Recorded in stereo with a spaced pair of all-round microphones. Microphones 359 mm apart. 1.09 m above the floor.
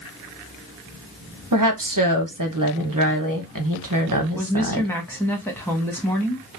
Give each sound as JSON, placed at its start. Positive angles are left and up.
{"t": 1.5, "sound": "a woman speaking", "side_deg": -60, "distance_m": 1.1}
{"t": 4.3, "sound": "a woman speaking", "side_deg": 5, "distance_m": 1.3}